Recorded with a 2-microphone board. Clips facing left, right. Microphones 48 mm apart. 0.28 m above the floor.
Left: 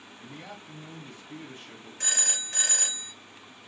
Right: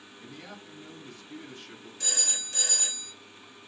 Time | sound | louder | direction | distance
0.2 | a man speaking | left 1 dB | 25° left (ahead or behind) | 1.4 m
2.0 | a phone ringing | left 3 dB | 45° left (ahead or behind) | 0.7 m